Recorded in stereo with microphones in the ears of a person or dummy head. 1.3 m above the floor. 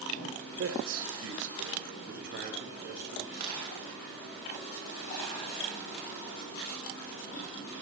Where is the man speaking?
70° right (ahead or behind), 1.3 m; by 3.2 s 50° right (ahead or behind), 3 m.